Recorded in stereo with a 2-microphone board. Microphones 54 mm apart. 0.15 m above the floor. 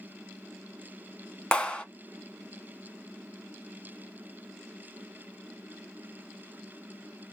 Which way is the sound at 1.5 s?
15° left (ahead or behind).